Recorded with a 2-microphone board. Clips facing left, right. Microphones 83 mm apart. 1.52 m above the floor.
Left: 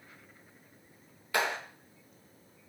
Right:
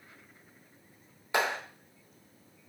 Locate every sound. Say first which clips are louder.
1.3 s a clap: right 1 dB; 25° right (ahead or behind), 4.5 m